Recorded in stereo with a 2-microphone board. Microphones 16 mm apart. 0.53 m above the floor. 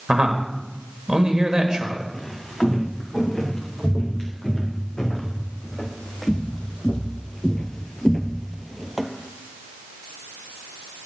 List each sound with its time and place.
0.1 s a man speaking: 60° right (ahead or behind), 1.6 m
2.1 s footsteps: 50° left (ahead or behind), 4 m; by 9.1 s 10° right (ahead or behind), 0.9 m